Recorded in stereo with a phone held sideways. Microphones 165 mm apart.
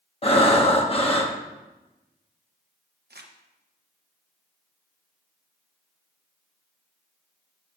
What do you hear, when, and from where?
0.2 s breathing: 35° left (ahead or behind), 1.1 m
3.1 s crumpling: 80° right, 1.0 m